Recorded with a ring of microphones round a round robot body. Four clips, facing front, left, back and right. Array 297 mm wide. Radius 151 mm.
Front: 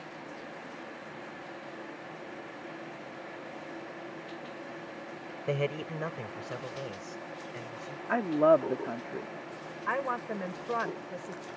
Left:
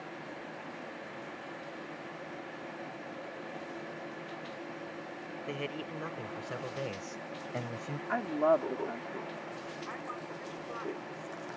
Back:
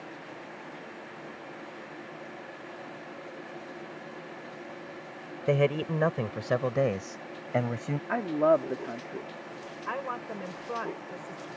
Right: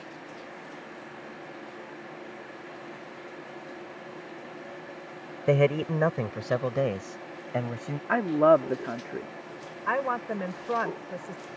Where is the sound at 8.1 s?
85° right.